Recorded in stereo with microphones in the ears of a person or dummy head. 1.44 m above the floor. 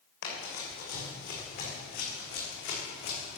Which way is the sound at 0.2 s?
70° left (ahead or behind).